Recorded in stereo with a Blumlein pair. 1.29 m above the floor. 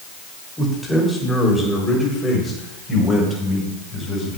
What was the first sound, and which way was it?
A man speaking, 5° left.